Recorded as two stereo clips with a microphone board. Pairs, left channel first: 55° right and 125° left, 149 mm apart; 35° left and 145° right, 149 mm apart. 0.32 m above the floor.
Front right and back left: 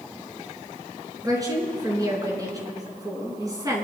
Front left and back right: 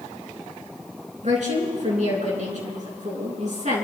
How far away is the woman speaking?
About 4 m.